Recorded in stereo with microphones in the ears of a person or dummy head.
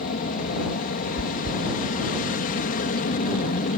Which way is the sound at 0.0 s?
45° left (ahead or behind).